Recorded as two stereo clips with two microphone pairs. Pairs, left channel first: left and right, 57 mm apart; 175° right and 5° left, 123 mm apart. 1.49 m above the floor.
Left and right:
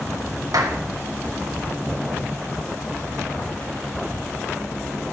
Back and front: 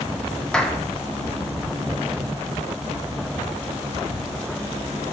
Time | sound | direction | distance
0.5 | a clap | 95° right | 1.3 m